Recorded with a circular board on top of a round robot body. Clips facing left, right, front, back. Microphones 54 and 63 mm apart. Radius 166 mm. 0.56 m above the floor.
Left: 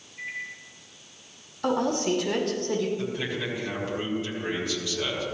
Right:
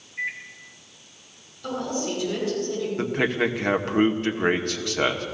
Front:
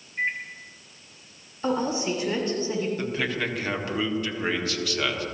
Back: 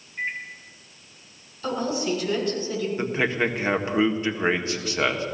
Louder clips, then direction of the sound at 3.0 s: Right 7 dB, back 4 dB; 115° right.